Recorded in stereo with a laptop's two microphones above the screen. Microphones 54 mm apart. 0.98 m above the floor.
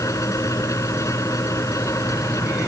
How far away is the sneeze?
No sneeze in this recording.